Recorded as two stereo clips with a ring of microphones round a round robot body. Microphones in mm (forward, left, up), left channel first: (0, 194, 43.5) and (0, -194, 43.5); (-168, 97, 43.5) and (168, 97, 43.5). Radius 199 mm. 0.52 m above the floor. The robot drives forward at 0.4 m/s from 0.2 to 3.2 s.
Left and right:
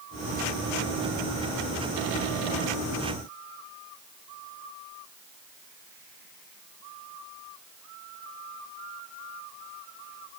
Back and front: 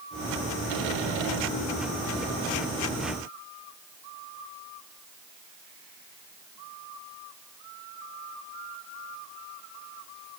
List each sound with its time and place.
Only background noise.